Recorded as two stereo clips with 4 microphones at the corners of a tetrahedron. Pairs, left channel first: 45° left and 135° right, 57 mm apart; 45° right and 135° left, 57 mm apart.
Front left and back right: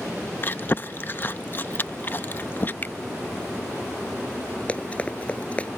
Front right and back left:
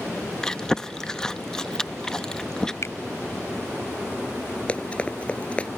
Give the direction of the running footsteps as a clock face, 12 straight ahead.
12 o'clock.